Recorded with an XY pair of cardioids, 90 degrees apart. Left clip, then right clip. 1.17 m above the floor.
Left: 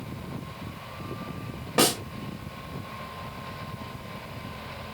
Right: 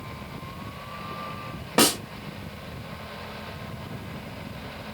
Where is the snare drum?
30° right, 1.3 m.